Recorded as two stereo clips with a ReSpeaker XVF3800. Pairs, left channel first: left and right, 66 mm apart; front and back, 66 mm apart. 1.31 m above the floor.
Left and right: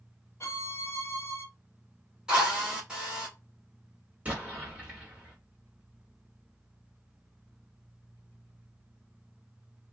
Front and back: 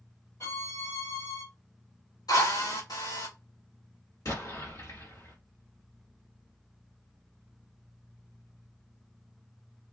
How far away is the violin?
About 0.9 m.